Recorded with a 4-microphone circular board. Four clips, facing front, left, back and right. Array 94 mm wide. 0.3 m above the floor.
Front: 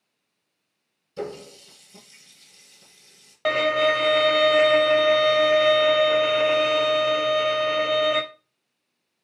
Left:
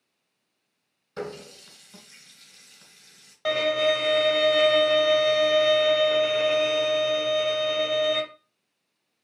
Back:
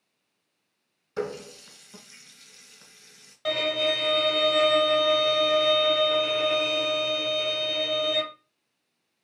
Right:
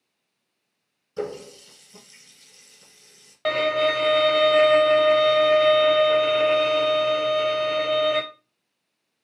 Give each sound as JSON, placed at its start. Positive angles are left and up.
{"t": 1.2, "sound": "a running tap", "azimuth_deg": 150, "distance_m": 2.0}
{"t": 3.5, "sound": "a violin", "azimuth_deg": -25, "distance_m": 0.7}